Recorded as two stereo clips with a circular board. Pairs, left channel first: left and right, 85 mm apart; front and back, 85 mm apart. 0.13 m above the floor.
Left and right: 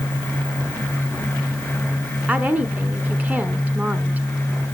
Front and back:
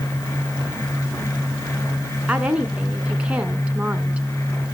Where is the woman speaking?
125° right, 1.1 m.